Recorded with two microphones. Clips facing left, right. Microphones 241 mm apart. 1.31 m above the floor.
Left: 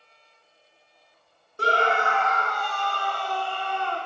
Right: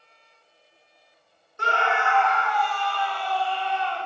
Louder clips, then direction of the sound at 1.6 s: Left 3 dB; 35° left (ahead or behind).